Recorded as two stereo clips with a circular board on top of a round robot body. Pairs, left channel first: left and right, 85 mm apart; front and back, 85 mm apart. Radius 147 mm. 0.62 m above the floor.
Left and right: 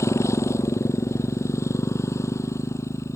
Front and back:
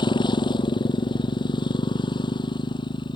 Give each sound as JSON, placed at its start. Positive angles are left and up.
{"t": 0.0, "sound": "a motorcycle", "azimuth_deg": 30}